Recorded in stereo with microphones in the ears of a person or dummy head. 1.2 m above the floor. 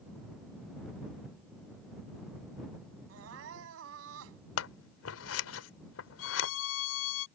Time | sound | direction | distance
3.1 | crying | 75° right (ahead or behind) | ?
4.6 | scissors | 80° left | ?
6.2 | a violin | 75° left (ahead or behind) | ?